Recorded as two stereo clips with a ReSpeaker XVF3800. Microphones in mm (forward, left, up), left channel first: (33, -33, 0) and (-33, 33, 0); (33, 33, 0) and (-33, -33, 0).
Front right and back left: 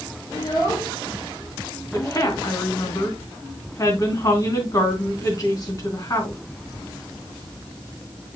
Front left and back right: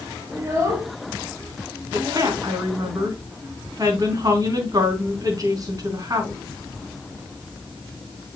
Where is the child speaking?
80° right, 5 m; by 2.4 s 95° right, 4 m.